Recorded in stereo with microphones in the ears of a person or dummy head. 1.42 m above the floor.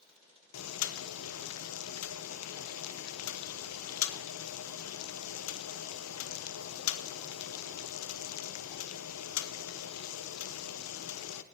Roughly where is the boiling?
Left.